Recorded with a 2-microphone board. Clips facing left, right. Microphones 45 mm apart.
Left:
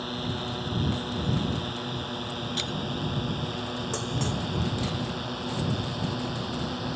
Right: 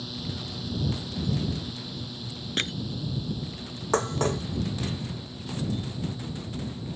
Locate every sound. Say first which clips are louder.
0.0 s a drone: left 4 dB; 40° left (ahead or behind); by 7.0 s 65° left (ahead or behind)
2.6 s crushing: right 6 dB; 40° right (ahead or behind)
3.9 s dishes clattering: right 9 dB; 40° right (ahead or behind)